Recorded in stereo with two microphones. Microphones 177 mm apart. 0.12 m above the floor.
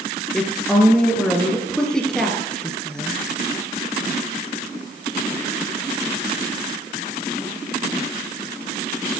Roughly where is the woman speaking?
Centre.